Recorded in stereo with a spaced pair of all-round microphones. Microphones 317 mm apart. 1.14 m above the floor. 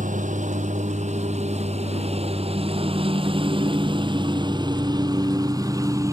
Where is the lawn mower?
25° right (ahead or behind); by 6.1 s 10° right (ahead or behind).